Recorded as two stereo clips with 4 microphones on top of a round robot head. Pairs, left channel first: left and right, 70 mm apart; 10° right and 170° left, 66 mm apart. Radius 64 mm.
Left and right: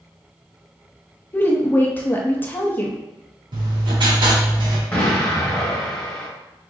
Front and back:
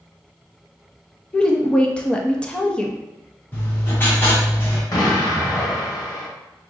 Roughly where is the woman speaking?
Ahead left.